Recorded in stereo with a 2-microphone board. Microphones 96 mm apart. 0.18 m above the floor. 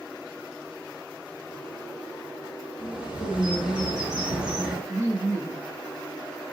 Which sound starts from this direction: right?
Laughter, at 4.9 s.